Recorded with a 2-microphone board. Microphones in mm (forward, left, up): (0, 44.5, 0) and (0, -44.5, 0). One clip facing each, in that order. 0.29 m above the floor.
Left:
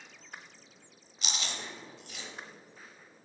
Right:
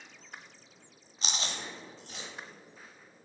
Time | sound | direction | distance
1.2 | chewing | 35° right (ahead or behind) | 1.0 m